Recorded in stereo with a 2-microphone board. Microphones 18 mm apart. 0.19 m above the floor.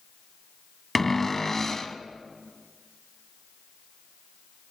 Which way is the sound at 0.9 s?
15° left (ahead or behind).